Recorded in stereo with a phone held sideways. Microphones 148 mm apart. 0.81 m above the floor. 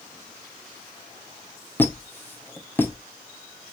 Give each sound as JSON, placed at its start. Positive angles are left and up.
{"t": 1.8, "sound": "a squeak", "side_deg": 15, "distance_m": 1.5}